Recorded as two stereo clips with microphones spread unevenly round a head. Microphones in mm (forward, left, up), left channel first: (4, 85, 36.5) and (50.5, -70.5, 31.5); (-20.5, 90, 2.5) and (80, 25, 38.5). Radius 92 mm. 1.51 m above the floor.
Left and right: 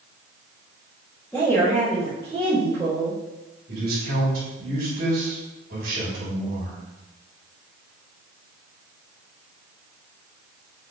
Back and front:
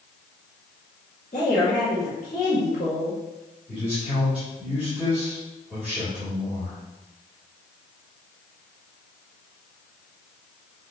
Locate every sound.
1.3 s a woman speaking: 160° right, 2.5 m
3.7 s a man speaking: 115° right, 3 m